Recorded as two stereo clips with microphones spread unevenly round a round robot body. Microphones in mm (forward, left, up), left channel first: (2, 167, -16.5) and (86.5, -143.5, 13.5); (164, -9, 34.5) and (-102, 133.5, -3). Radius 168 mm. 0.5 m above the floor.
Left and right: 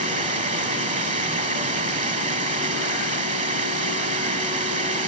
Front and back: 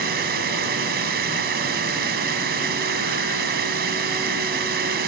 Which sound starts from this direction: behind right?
Running water, at 0.0 s.